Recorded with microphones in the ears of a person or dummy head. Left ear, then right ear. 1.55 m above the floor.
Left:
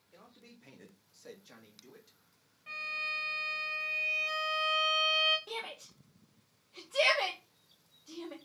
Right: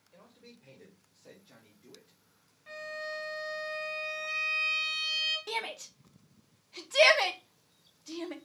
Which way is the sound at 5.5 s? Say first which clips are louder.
Right 5 dB; 20° right (ahead or behind).